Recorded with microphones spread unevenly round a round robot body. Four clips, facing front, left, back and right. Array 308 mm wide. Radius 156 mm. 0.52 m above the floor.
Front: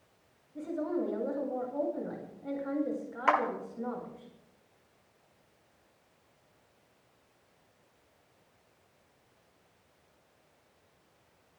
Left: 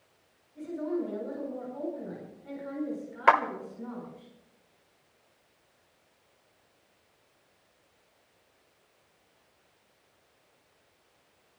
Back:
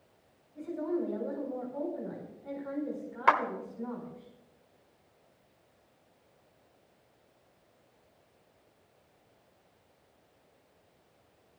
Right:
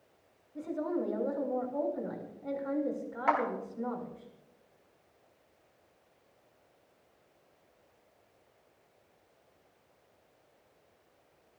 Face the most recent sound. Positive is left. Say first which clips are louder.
# left 7 dB, back 2 dB
turn(degrees=120)